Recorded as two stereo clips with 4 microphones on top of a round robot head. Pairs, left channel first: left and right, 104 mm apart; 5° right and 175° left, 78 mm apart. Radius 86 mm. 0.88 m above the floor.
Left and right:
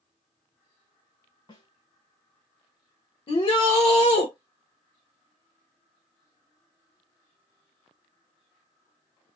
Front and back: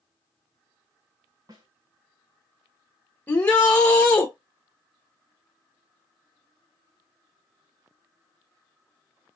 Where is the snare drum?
140° left, 2 m.